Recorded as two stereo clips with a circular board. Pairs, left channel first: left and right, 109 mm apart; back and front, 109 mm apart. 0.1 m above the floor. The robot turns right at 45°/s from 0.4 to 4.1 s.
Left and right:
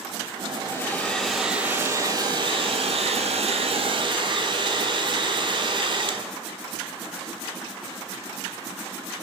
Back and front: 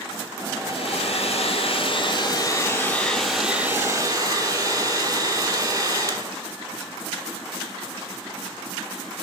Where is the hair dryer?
150° left, 0.9 m; by 6.3 s 55° right, 0.9 m.